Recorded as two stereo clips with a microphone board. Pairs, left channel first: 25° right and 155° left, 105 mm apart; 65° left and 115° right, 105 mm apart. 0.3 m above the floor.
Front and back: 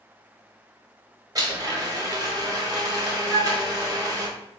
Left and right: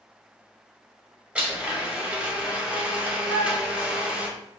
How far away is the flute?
About 2.5 m.